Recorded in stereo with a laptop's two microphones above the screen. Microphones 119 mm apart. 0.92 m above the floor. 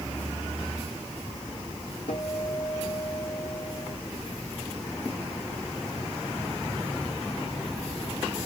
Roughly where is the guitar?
Left.